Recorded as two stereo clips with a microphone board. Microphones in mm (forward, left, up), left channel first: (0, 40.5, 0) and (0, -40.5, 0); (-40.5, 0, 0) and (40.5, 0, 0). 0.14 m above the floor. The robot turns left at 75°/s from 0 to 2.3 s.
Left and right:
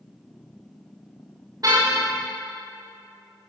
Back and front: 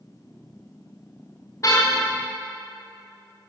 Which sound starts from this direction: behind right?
A car horn, at 1.6 s.